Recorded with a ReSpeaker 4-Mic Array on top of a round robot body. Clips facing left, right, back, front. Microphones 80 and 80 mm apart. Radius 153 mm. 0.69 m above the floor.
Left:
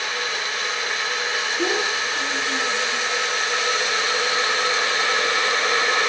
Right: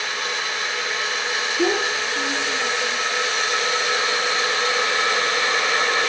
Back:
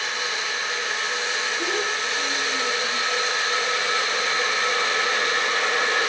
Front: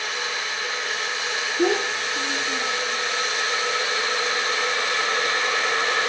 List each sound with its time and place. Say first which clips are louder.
1.6 s a child speaking: right 3 dB, front 4 dB; 20° right, 1.3 m; by 3.0 s 5° left, 2 m